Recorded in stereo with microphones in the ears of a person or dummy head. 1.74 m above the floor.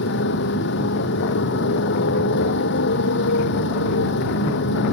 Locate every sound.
0.0 s a motorcycle: 60° left (ahead or behind)